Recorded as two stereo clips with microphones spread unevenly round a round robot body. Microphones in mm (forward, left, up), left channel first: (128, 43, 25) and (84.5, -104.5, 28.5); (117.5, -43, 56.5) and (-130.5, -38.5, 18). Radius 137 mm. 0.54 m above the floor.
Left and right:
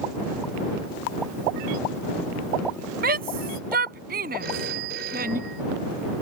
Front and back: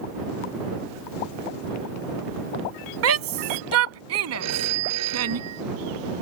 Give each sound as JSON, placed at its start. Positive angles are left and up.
{"t": 3.0, "sound": "a shout", "azimuth_deg": -155}
{"t": 4.4, "sound": "a phone ringing", "azimuth_deg": -160}